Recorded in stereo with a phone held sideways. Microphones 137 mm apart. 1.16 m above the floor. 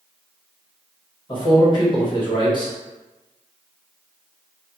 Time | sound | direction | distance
1.3 | a man speaking | 35° left (ahead or behind) | 1.2 m